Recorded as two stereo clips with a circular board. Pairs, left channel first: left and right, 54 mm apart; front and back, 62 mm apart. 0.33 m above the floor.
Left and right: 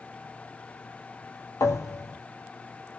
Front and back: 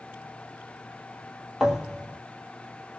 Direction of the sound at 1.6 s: 100° left.